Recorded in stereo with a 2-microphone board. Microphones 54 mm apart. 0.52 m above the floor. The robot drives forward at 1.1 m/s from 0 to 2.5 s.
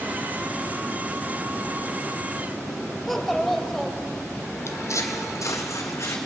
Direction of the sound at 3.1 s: 5° left (ahead or behind).